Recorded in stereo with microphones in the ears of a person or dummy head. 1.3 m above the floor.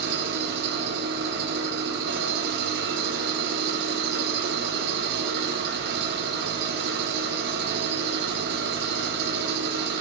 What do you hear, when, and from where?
0.0 s an engine running: 60° right (ahead or behind), 1.5 m